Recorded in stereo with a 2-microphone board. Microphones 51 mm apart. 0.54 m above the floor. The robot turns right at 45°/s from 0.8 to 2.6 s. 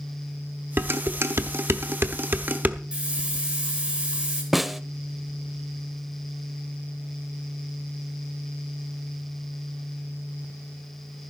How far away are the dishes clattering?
About 1.0 m.